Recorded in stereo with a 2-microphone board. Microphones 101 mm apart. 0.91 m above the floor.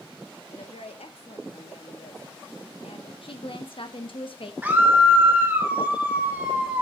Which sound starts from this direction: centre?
A scream, at 4.6 s.